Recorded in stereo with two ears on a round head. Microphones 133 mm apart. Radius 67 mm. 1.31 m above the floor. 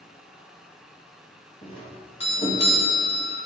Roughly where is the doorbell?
Left.